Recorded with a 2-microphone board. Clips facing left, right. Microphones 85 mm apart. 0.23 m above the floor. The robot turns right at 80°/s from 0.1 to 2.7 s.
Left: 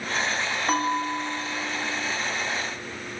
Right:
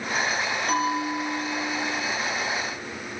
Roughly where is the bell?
Left.